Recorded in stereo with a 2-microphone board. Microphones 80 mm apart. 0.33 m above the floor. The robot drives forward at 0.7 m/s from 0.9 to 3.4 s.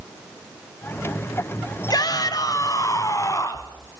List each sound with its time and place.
1.9 s a shout: 55° left (ahead or behind), 2.5 m; by 3.7 s 40° left (ahead or behind), 3 m